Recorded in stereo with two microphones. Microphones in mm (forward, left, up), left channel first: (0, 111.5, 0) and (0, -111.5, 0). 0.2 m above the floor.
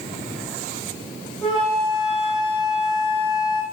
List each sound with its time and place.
1.4 s a flute: 25° left (ahead or behind), 1.2 m